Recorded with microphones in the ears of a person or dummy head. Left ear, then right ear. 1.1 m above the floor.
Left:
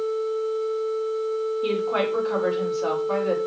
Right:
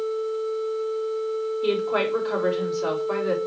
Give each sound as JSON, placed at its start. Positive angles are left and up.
{"t": 1.6, "sound": "a woman speaking", "side_deg": 0, "distance_m": 4.5}